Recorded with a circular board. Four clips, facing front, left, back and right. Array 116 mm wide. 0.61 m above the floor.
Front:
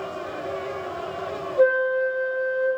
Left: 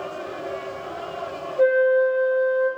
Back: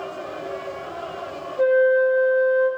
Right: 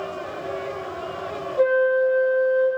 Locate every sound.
1.6 s a flute: 65° right, 1.6 m